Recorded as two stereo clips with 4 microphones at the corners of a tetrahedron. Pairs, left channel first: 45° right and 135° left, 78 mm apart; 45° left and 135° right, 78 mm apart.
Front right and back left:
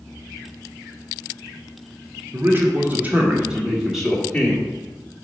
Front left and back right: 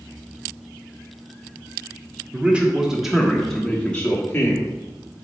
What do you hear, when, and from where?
2.3 s a man speaking: 165° left, 1.3 m; by 4.7 s 25° left, 1.2 m